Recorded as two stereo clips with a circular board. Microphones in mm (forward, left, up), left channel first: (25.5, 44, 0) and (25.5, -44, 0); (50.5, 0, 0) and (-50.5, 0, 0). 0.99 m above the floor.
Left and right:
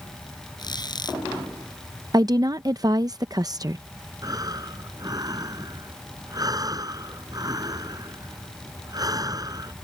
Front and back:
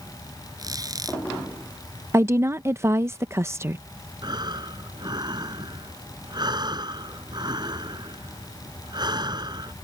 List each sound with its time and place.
0.6 s a squeak: 125° left
2.1 s a woman speaking: 120° right
4.2 s breathing: 135° right